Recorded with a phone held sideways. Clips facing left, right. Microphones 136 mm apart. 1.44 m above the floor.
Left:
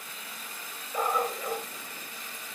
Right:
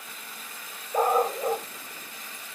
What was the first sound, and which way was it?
A dog barking, 40° right (ahead or behind).